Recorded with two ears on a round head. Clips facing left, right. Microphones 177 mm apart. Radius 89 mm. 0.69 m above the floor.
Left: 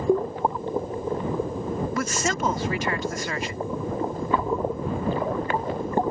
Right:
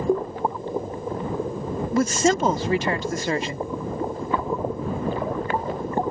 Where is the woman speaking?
25° right (ahead or behind).